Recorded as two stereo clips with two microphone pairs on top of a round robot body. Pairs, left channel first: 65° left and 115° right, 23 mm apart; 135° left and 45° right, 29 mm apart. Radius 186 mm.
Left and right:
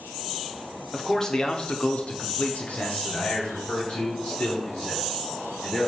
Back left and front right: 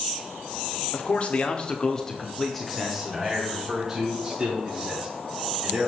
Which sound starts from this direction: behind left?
A man speaking, at 0.9 s.